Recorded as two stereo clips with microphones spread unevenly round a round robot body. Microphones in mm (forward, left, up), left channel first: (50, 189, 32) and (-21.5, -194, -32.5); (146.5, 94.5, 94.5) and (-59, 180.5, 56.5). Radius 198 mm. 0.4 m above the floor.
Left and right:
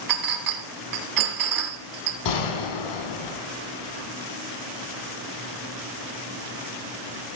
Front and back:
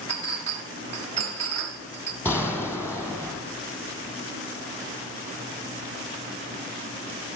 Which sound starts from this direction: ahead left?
A gunshot, at 2.2 s.